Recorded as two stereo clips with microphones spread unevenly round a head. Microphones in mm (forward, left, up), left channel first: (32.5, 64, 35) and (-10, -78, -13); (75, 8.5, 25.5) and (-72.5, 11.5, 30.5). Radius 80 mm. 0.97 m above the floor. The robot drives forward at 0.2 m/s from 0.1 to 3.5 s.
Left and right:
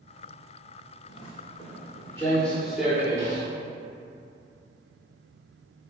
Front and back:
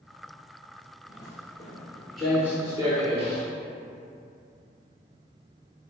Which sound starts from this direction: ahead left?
Footsteps, at 1.1 s.